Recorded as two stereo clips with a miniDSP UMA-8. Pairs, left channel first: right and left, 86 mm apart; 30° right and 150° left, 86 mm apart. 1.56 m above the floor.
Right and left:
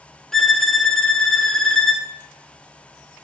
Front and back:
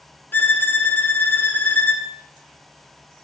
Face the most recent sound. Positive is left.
turn(degrees=-10)